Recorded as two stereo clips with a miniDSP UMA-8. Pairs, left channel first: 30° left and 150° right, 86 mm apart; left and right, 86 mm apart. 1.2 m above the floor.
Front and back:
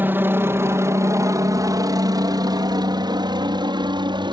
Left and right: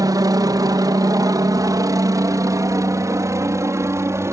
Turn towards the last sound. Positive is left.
turn(degrees=-145)